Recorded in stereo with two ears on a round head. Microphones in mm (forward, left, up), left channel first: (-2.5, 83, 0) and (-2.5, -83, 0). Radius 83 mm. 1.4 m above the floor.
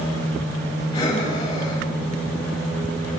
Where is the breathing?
25° left (ahead or behind), 5.5 m.